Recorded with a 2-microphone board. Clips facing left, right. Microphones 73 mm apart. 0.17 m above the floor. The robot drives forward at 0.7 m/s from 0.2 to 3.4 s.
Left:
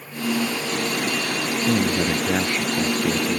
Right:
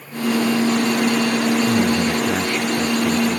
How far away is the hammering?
No hammering in this recording.